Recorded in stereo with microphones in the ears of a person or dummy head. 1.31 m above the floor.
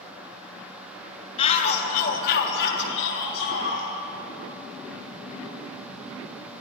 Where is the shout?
25° left (ahead or behind), 3 m; by 3.9 s 75° left (ahead or behind), 4.5 m.